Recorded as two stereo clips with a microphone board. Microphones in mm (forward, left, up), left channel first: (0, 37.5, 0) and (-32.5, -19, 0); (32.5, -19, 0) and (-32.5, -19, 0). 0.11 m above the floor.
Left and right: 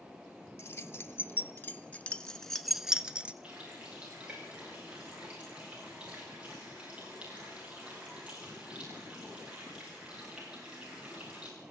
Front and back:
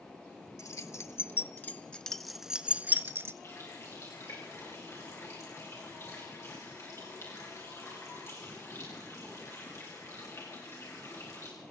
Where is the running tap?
50° right, 9.5 m.